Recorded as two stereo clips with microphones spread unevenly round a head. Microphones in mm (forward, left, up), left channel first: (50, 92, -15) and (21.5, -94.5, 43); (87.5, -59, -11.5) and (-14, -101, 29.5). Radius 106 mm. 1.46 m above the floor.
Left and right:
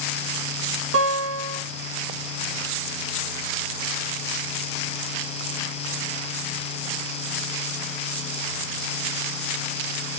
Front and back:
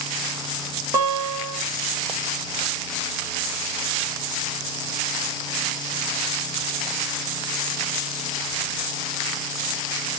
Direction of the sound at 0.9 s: 100° right.